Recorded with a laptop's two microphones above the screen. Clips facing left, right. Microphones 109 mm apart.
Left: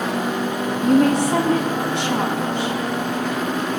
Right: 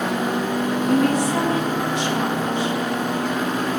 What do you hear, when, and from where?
0.8 s a woman speaking: 65° left (ahead or behind), 1.9 m